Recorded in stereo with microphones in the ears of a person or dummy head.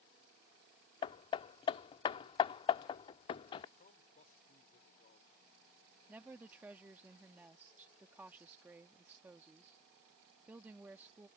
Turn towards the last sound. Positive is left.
turn(degrees=-10)  # may be behind; listen again after turning